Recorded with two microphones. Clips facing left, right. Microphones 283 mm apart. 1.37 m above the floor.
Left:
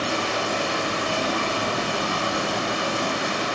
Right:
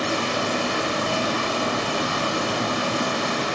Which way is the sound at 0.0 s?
85° right.